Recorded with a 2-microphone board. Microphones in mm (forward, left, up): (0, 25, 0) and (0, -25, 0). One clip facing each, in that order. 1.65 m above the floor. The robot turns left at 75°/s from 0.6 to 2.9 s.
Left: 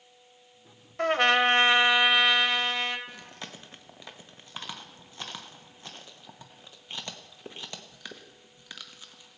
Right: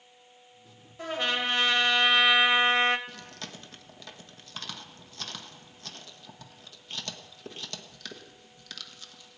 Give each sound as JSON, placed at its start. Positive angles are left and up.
{"t": 1.0, "sound": "a trumpet", "azimuth_deg": 95, "distance_m": 1.0}
{"t": 3.1, "sound": "chewing", "side_deg": 20, "distance_m": 1.1}